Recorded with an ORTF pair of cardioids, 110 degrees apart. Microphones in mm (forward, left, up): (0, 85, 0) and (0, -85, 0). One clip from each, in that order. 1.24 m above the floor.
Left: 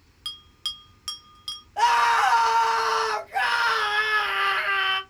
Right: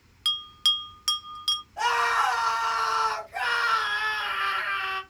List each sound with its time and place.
0.2 s a bell: 25° right, 0.5 m
1.8 s a scream: 45° left, 1.4 m